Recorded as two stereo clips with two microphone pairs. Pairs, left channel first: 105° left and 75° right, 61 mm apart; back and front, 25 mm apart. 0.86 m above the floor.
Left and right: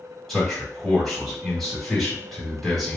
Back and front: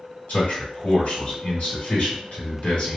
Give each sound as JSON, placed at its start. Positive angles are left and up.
{"t": 0.3, "sound": "a man speaking", "azimuth_deg": -170, "distance_m": 1.9}